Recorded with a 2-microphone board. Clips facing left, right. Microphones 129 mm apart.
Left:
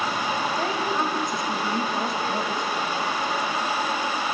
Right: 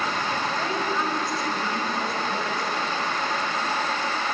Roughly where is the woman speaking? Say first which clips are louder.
Left 1 dB; left.